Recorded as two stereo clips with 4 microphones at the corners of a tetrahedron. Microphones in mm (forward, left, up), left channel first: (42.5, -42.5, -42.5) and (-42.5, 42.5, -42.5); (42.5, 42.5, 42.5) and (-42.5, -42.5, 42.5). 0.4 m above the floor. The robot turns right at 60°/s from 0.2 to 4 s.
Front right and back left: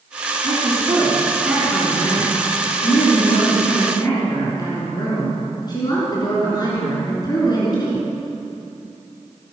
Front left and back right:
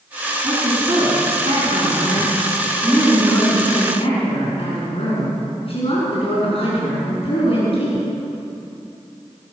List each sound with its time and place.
0.4 s a woman speaking: 155° left, 5.5 m; by 8.1 s 10° left, 5.5 m